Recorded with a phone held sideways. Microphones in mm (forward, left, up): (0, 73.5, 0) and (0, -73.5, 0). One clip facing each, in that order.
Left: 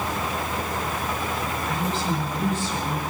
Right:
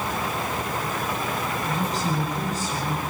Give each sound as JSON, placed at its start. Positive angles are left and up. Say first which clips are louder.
{"t": 1.6, "sound": "a woman speaking", "louder": "even", "side_deg": -40, "distance_m": 7.5}